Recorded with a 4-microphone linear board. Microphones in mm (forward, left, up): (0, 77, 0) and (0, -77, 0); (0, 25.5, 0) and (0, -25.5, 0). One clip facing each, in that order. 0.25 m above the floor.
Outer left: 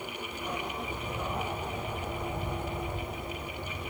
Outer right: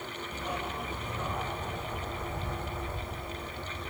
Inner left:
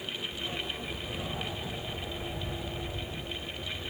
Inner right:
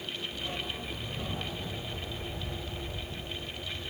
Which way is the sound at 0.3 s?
10° right (ahead or behind).